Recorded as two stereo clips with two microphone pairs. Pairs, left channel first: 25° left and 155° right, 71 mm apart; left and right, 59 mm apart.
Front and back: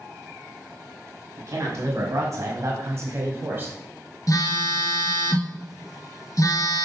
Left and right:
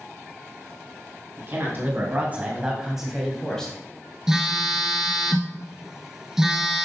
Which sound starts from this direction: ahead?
A phone buzzing, at 4.3 s.